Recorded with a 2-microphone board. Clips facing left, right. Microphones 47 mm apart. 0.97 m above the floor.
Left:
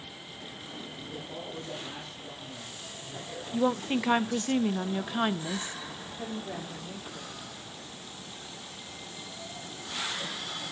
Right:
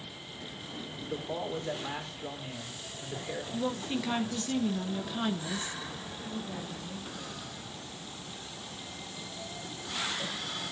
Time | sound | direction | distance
1.0 | a man speaking | 50° right (ahead or behind) | 3 m
3.5 | a woman speaking | 30° left (ahead or behind) | 0.5 m
6.2 | a woman speaking | 75° left (ahead or behind) | 3 m